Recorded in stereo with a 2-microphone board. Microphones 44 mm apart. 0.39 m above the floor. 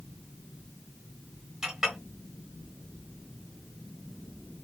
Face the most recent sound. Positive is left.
turn(degrees=-10)  # may be behind; listen again after turning